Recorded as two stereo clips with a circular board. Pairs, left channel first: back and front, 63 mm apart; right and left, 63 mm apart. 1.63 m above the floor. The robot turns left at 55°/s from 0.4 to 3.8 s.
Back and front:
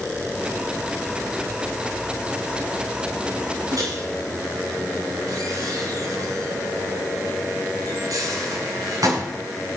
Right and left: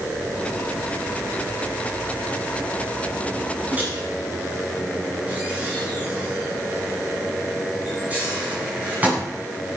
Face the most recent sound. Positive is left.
turn(degrees=20)